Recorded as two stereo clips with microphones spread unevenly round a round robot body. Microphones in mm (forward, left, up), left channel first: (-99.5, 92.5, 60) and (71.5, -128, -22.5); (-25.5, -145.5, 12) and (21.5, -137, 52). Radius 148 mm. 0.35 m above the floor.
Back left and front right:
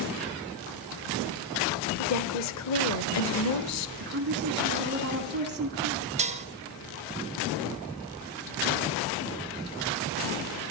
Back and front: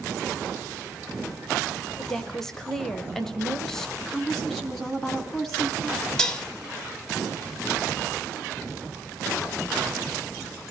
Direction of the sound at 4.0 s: 100° right.